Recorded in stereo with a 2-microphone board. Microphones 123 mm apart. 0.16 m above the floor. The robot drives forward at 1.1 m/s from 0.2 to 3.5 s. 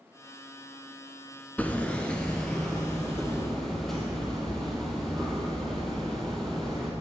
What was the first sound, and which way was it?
Hammering, 15° left (ahead or behind).